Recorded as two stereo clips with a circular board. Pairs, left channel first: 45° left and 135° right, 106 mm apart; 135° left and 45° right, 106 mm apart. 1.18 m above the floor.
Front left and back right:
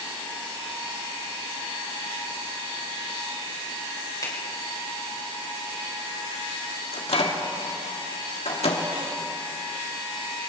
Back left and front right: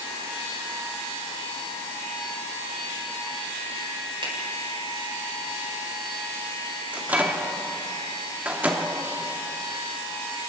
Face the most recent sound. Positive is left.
turn(degrees=30)